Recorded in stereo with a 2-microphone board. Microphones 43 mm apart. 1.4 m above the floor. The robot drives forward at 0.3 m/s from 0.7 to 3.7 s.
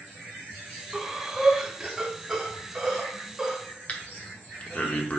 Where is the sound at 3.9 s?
35° left (ahead or behind), 0.7 m.